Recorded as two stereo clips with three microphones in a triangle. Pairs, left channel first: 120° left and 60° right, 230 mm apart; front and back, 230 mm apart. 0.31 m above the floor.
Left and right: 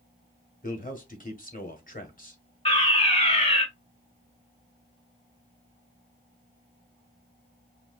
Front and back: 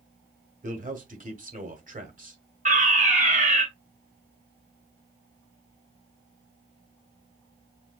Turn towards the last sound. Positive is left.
turn(degrees=160)